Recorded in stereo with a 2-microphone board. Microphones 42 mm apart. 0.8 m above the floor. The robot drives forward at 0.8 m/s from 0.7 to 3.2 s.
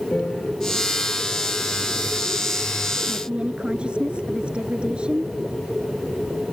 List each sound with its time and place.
0.1 s a piano: 35° left (ahead or behind)
3.1 s a woman speaking: 25° right (ahead or behind)